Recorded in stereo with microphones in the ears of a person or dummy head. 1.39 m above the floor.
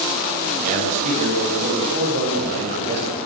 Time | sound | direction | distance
0.6 | a man speaking | 50° right (ahead or behind) | 9 m